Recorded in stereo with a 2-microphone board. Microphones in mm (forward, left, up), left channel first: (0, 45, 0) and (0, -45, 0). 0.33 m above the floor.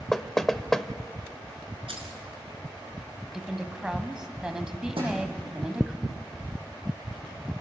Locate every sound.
0.1 s knocking: 5° left (ahead or behind), 0.8 m
1.9 s keys jangling: 75° right (ahead or behind), 3.5 m
3.3 s a woman speaking: 10° right (ahead or behind), 1.7 m
5.0 s a thud: 75° right (ahead or behind), 8 m